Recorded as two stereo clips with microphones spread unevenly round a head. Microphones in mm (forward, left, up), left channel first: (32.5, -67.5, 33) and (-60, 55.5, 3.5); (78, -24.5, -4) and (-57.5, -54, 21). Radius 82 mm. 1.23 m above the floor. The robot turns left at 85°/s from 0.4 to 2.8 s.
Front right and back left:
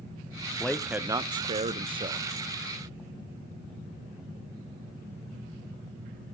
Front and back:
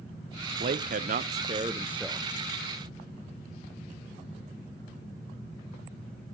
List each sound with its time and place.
0.6 s a man speaking: 140° right, 0.6 m; by 2.2 s 80° left, 0.6 m